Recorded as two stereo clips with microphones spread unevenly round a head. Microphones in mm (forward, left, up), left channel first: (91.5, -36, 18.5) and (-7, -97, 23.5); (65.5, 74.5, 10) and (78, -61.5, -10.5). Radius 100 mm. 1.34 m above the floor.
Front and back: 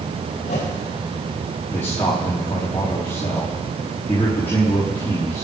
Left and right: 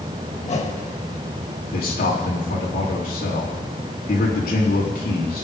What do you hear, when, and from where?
0.4 s a whoosh: 60° left, 2.5 m
1.7 s a man speaking: 110° left, 3 m